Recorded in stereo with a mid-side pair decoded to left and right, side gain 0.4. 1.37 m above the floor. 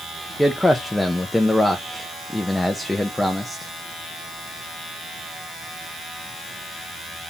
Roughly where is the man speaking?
Ahead.